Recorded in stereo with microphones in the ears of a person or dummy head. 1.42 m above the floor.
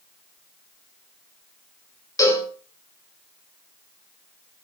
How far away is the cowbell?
About 5.5 m.